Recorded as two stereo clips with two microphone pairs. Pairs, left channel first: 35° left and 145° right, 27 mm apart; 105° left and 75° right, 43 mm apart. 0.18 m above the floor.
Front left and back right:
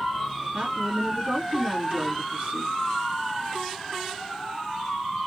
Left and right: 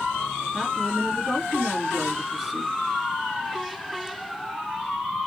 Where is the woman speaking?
160° right, 2 m.